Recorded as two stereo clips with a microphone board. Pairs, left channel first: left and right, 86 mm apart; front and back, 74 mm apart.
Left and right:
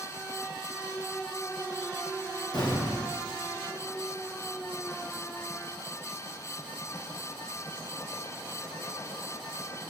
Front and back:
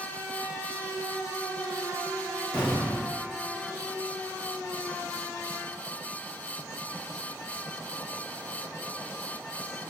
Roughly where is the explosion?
Ahead left.